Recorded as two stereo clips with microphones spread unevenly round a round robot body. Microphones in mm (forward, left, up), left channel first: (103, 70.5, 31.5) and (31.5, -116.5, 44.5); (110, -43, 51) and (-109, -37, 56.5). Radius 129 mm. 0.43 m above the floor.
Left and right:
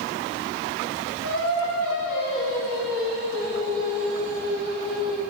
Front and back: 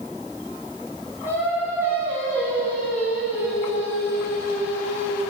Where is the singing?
100° left, 4 m.